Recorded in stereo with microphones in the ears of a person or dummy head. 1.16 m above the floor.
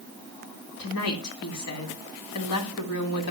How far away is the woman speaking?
About 3 m.